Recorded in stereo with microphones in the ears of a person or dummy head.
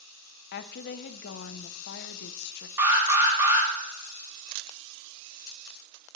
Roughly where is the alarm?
Centre.